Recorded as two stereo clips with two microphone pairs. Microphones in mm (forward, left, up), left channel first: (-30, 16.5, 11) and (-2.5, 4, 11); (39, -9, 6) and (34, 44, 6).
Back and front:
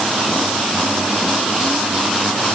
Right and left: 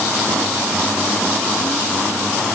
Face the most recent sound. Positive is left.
No sound to turn to.